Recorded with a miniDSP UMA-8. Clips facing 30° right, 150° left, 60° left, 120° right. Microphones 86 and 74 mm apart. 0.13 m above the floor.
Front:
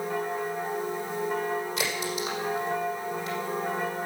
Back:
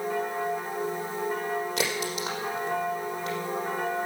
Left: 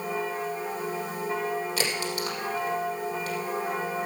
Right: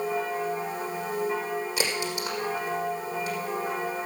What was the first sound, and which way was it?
A crack, 165° left.